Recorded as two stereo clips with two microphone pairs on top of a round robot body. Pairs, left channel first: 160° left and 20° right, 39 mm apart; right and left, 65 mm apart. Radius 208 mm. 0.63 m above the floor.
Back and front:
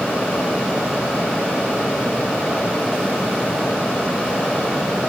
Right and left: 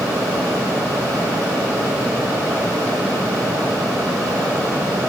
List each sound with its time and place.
Only background noise.